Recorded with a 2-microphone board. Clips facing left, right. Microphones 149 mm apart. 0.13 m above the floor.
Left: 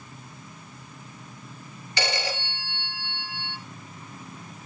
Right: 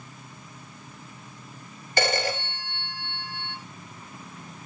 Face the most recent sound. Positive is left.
turn(degrees=-50)  # may be behind; listen again after turning